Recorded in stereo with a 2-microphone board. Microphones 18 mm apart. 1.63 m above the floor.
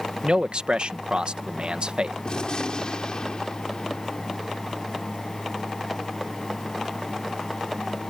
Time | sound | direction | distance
0.2 | a man speaking | 75° right (ahead or behind) | ?
2.2 | a gunshot | 55° left (ahead or behind) | ?